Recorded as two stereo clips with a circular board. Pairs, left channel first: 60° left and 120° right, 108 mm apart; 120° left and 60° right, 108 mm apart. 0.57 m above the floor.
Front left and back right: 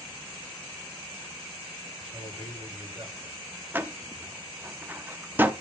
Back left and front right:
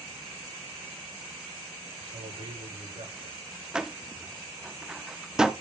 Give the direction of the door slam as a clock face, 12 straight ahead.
4 o'clock.